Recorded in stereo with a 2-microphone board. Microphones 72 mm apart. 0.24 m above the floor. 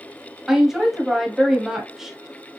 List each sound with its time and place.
0.5 s a woman speaking: 5° right (ahead or behind), 1.1 m